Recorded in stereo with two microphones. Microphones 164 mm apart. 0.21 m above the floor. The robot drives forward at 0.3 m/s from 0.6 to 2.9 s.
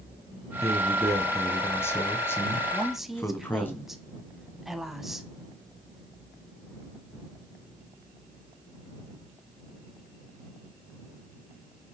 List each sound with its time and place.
0.6 s a man speaking: 15° left (ahead or behind), 1.1 m; by 3.7 s 10° left (ahead or behind), 1.5 m
2.7 s a woman speaking: centre (ahead or behind), 1.1 m